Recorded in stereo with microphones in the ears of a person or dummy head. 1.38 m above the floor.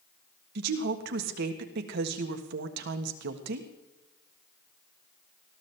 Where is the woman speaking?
65° right (ahead or behind), 1.4 m.